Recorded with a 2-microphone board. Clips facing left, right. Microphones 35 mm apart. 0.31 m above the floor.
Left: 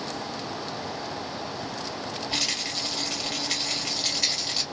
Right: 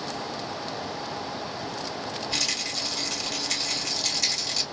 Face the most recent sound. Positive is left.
turn(degrees=15)  # may be behind; listen again after turning